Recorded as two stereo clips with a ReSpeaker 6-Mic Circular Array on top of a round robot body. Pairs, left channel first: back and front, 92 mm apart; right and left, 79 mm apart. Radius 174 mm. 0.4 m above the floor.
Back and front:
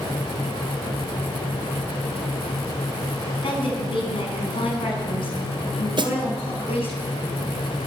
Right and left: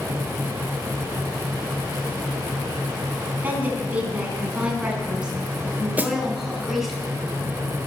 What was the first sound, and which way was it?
A woman speaking, 160° left.